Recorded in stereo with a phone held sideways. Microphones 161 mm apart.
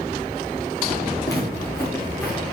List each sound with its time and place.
1.2 s footsteps: 20° left (ahead or behind), 4.5 m; by 2.4 s 5° left (ahead or behind), 5 m